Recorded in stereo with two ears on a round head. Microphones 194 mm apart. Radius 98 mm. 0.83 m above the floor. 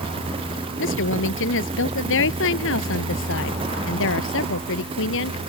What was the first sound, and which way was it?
A woman speaking, 70° left (ahead or behind).